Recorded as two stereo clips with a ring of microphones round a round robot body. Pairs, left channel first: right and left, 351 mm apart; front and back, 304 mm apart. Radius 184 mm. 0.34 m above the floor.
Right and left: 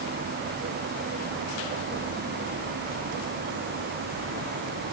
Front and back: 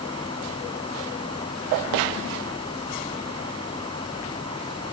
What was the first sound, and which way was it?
Only background noise.